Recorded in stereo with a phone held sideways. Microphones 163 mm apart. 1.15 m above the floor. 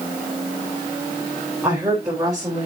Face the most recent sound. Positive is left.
turn(degrees=-20)  # may be behind; listen again after turning